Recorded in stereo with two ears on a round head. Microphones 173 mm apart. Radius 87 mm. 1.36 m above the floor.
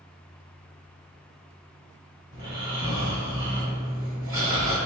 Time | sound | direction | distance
2.3 | snoring | 25° right (ahead or behind) | 1.1 m